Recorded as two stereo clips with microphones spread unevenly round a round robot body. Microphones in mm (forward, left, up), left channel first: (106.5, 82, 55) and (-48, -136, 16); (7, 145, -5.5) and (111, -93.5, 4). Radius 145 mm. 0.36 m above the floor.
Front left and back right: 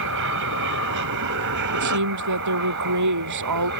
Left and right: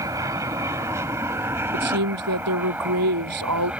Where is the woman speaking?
110° right.